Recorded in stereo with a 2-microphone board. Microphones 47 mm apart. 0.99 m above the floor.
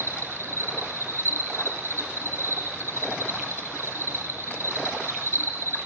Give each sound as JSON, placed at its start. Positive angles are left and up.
{"t": 0.0, "sound": "an insect", "side_deg": -60, "distance_m": 5.5}